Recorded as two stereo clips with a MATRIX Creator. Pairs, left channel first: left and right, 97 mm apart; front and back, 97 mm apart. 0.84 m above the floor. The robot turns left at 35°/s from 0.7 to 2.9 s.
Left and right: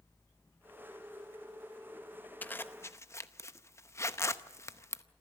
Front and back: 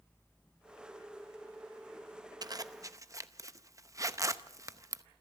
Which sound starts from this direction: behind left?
A zipper, at 2.4 s.